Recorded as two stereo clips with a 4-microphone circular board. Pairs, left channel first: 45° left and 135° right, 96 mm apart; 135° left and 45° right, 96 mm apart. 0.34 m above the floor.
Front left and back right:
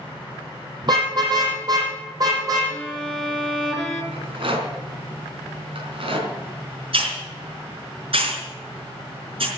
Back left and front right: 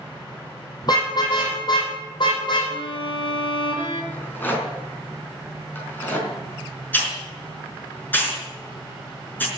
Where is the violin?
130° left, 2.5 m.